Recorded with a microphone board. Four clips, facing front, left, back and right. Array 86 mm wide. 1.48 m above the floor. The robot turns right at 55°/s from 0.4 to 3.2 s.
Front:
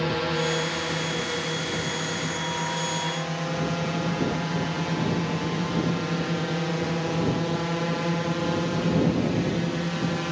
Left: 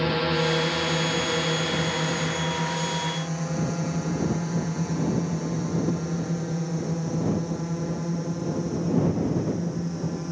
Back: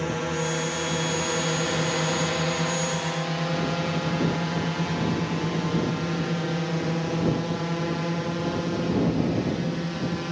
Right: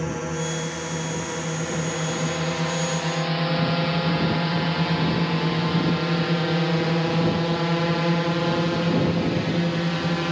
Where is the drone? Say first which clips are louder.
Left 4 dB, front 2 dB; 65° left; by 10.3 s 75° right.